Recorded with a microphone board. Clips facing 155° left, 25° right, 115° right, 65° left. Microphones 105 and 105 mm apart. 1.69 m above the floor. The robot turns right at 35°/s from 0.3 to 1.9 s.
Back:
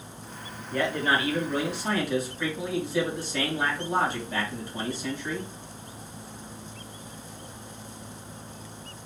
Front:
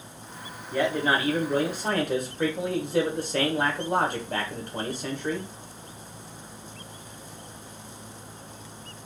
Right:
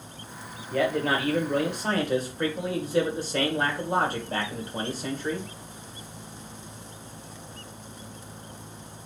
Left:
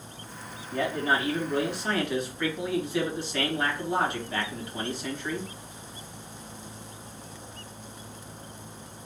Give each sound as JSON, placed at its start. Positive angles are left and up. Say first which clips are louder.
{"t": 0.7, "sound": "a man speaking", "louder": "front 2 dB, right 2 dB", "azimuth_deg": -105, "distance_m": 1.3}